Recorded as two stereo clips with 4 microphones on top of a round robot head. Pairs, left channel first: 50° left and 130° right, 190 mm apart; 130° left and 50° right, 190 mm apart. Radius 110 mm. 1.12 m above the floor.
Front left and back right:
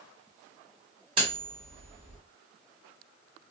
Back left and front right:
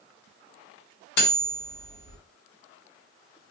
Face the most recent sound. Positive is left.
turn(degrees=165)